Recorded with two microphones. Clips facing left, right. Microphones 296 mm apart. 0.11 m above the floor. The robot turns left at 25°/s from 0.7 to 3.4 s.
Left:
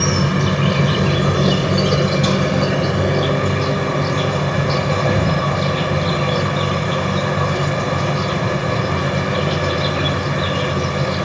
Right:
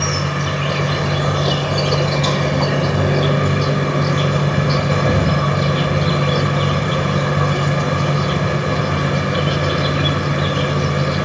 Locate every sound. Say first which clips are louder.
0.0 s an insect: left 4 dB; 55° left, 1.6 m; by 11.3 s 15° right, 1.6 m